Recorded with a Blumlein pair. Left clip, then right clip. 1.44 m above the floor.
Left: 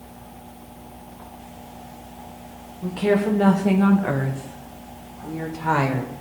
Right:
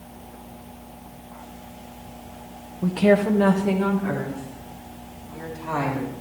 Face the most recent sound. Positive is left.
turn(degrees=55)